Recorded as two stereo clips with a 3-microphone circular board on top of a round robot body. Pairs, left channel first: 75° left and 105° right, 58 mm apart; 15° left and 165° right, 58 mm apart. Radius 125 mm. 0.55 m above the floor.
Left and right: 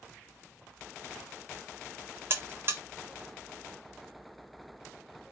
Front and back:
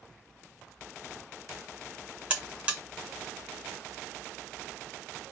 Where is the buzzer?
105° right, 1.1 m.